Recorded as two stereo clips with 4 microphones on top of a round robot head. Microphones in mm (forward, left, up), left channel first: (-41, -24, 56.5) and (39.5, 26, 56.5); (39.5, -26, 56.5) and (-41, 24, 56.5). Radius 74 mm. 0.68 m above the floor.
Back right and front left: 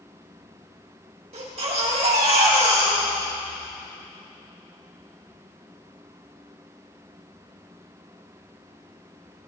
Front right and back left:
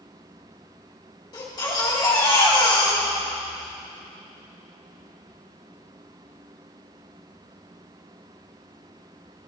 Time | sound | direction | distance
1.3 | a baby crying | 15° left | 3 m